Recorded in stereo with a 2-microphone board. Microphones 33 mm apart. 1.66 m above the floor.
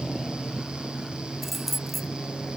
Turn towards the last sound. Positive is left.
turn(degrees=-5)  # may be behind; listen again after turning